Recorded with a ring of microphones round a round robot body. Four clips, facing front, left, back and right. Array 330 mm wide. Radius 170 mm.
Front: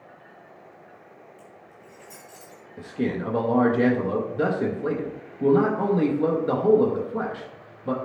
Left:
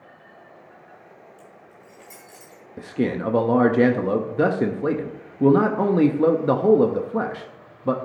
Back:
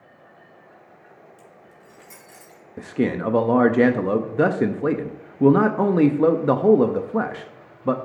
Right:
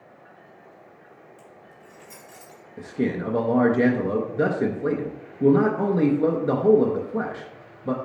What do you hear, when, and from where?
1.4 s keys jangling: 175° right, 3 m; by 2.6 s 160° left, 3 m
2.8 s a man speaking: 155° left, 0.6 m